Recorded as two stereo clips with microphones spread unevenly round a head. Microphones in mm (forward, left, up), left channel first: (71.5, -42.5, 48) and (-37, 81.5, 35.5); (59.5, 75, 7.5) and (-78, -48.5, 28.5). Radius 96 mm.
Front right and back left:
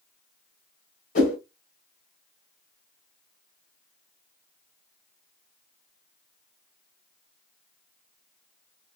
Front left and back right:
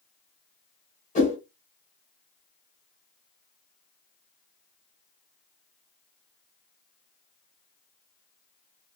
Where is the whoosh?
15° right, 1.9 m.